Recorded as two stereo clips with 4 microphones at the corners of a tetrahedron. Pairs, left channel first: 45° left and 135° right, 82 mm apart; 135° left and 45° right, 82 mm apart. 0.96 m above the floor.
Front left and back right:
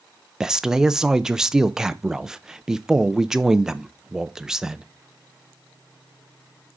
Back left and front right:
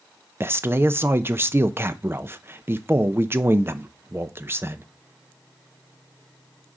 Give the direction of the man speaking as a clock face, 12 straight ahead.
2 o'clock.